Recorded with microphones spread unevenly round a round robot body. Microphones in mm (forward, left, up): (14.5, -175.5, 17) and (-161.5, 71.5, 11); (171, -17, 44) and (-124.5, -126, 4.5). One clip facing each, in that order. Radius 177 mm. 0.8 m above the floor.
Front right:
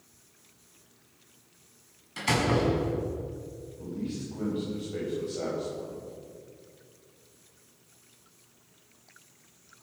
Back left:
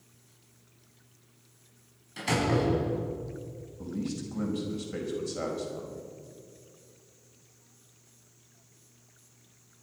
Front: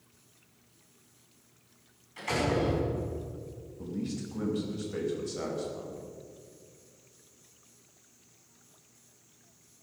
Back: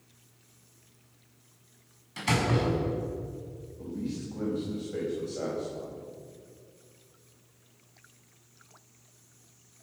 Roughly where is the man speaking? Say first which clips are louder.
Back left 1 dB, back 1 dB; left.